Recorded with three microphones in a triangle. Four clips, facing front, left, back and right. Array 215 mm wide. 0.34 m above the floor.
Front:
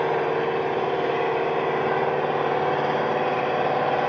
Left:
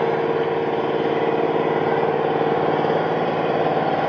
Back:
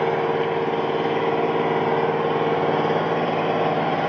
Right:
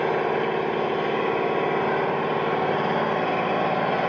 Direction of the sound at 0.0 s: 115° left.